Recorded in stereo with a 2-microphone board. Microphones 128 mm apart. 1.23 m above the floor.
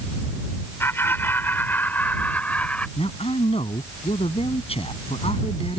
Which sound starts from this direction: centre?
Laughter, at 0.8 s.